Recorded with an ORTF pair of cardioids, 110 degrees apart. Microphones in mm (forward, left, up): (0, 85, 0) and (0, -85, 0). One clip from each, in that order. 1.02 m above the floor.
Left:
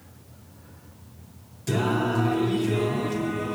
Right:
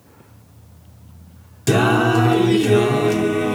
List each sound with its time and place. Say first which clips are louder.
1.7 s singing: right 9 dB; 60° right, 0.6 m